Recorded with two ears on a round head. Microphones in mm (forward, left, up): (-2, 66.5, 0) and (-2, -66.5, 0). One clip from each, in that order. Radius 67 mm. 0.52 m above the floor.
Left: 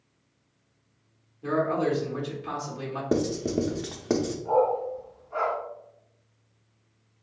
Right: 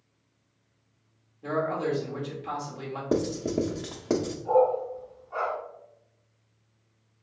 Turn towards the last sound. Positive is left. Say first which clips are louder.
# right 1 dB
turn(degrees=-15)  # may be behind; listen again after turning